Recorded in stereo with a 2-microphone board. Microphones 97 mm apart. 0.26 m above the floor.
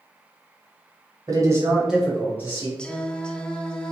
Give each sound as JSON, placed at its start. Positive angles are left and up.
{"t": 1.3, "sound": "a man speaking", "side_deg": -35, "distance_m": 1.5}
{"t": 2.8, "sound": "singing", "side_deg": 10, "distance_m": 0.6}